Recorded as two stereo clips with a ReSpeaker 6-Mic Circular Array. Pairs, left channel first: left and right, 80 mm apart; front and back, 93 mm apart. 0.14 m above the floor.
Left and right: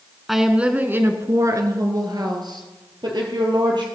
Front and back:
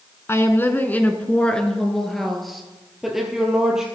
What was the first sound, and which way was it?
A woman speaking, 5° right.